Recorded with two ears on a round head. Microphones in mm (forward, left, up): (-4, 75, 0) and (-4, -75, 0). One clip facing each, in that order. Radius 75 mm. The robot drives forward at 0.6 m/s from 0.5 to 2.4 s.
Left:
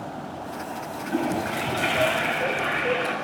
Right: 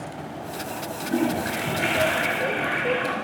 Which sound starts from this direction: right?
A toilet flushing, at 1.1 s.